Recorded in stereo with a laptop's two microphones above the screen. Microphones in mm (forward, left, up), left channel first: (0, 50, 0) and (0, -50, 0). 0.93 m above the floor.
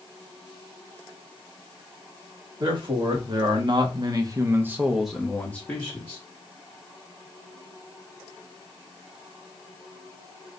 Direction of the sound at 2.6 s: 50° right (ahead or behind).